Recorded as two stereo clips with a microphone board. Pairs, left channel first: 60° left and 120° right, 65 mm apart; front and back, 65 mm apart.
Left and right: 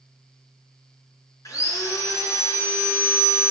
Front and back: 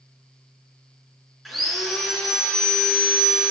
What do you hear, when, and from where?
1.4 s sawing: 90° left, 4 m